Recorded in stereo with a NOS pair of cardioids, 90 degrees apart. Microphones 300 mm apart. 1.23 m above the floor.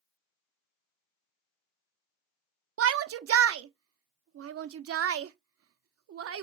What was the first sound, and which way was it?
A shout, 50° right.